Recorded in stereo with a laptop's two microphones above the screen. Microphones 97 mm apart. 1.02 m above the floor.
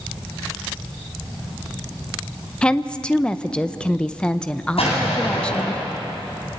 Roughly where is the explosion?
Left.